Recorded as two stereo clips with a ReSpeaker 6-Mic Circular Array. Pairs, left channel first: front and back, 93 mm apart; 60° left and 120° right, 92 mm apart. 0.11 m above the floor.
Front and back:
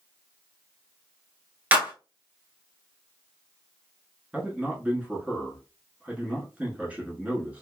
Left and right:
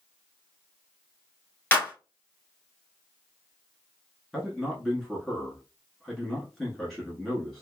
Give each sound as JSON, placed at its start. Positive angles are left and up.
{"t": 1.7, "sound": "a clap", "azimuth_deg": 120, "distance_m": 1.1}
{"t": 4.3, "sound": "a man speaking", "azimuth_deg": 140, "distance_m": 1.1}